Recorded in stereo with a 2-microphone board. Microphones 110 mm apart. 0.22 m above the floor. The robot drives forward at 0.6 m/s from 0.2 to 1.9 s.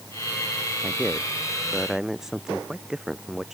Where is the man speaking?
5° right (ahead or behind).